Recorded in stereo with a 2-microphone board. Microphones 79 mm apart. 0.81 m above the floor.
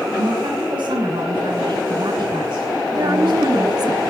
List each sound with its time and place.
0.2 s a woman speaking: 85° right, 6.5 m; by 3.9 s 80° right, 3.5 m
2.9 s a woman speaking: 55° right (ahead or behind), 1.4 m